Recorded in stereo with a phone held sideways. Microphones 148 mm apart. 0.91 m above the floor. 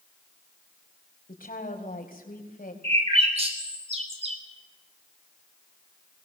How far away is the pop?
I don't hear a pop.